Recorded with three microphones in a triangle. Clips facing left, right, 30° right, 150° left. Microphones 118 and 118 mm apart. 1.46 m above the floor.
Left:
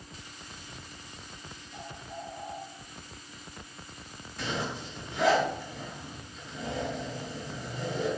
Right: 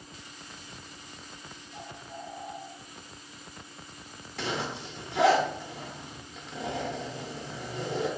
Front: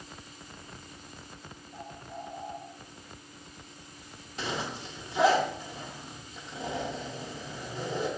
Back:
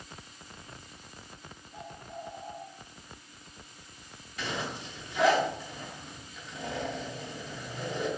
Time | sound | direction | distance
1.7 | a bird | 40° left | 2.5 m
4.4 | a zipper | 90° right | 1.1 m